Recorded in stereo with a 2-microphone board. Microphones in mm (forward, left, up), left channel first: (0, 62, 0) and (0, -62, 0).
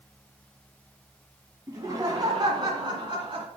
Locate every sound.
1.7 s laughter: 25° right (ahead or behind), 1.8 m; by 3.5 s 40° right (ahead or behind), 2.5 m